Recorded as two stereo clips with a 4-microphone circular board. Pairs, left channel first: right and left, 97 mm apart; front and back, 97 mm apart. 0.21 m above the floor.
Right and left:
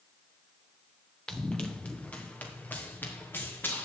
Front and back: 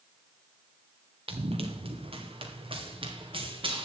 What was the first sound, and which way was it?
Running footsteps, 170° right.